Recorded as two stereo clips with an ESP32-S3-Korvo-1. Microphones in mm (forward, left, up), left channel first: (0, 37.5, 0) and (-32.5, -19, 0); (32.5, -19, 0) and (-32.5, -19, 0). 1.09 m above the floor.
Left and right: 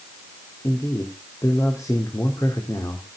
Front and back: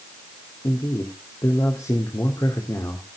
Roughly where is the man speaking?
Ahead left.